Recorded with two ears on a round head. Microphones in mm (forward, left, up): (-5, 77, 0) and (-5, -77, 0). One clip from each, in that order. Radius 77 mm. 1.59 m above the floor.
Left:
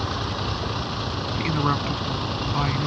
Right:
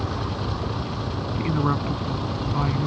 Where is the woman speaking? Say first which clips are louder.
Left 1 dB; 70° left (ahead or behind).